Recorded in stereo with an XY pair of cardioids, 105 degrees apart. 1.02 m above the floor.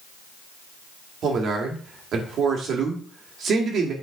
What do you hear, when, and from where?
1.2 s a man speaking: 65° right, 2 m